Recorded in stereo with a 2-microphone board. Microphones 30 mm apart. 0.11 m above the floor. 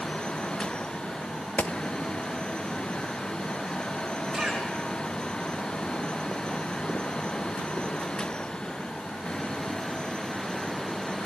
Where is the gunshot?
60° left (ahead or behind), 0.6 m.